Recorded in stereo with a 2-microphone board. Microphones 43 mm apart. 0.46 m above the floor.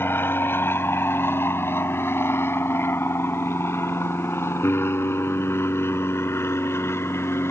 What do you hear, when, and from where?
0.0 s an aircraft: 60° left (ahead or behind); by 7.5 s 75° left (ahead or behind)